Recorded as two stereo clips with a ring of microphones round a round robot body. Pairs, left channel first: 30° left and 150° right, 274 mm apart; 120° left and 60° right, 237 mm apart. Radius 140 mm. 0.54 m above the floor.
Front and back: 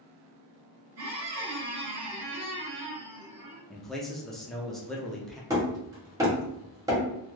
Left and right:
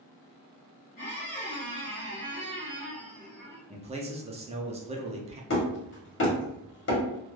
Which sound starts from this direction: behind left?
Hammering, at 5.5 s.